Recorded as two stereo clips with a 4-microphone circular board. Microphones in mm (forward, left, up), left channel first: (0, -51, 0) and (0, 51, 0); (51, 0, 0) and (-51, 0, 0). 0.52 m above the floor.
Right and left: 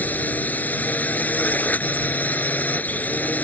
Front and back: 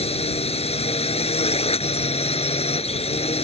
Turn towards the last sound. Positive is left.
turn(degrees=-15)